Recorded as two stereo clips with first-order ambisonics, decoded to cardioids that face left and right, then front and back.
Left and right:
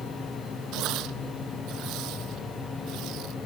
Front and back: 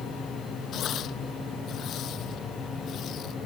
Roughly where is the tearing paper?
Ahead right.